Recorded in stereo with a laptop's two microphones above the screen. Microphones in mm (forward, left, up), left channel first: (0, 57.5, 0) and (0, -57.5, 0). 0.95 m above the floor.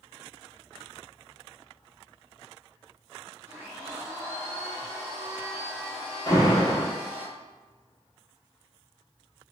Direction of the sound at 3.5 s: 20° right (ahead or behind).